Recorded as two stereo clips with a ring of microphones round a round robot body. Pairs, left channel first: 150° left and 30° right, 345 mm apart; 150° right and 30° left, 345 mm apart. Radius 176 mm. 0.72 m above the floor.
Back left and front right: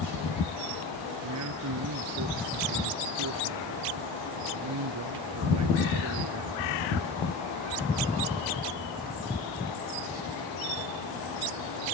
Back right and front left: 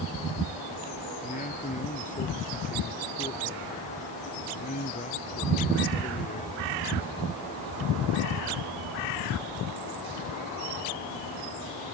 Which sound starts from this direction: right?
A man speaking, at 1.2 s.